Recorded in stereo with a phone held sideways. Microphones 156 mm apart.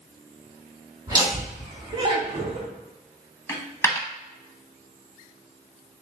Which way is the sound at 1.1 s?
25° right (ahead or behind).